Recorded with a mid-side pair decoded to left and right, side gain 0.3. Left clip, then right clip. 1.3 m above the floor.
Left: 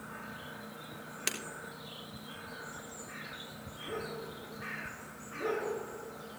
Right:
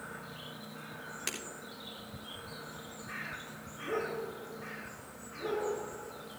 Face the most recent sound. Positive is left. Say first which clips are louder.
# left 3 dB
turn(degrees=45)